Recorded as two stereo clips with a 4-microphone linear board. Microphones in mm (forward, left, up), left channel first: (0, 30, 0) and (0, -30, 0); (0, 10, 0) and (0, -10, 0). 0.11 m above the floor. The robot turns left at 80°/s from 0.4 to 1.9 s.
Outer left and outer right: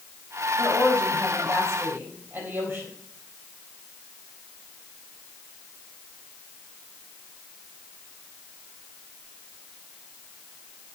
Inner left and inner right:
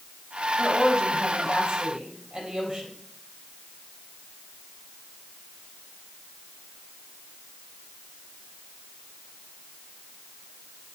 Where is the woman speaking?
30° right, 4 m; by 2.9 s 140° right, 4 m.